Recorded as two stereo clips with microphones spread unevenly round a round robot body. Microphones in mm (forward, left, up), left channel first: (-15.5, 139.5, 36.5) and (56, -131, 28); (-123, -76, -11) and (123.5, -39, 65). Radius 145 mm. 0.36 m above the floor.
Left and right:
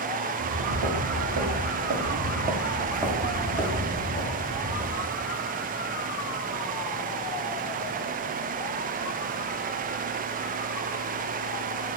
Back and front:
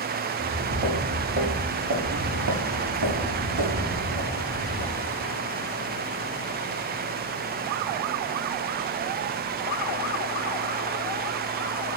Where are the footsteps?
50° right, 2 m; by 5.3 s 50° left, 2.5 m.